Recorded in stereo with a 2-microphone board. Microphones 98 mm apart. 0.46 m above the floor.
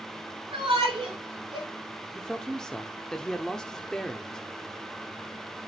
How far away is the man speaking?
About 0.7 m.